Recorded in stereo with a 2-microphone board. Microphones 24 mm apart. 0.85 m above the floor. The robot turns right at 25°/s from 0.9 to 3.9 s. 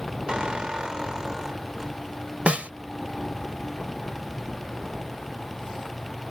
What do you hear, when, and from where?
0.3 s a squeak: 35° right (ahead or behind); by 2.0 s 10° right (ahead or behind)
2.5 s a snare drum: 65° right (ahead or behind); by 2.7 s 75° right (ahead or behind)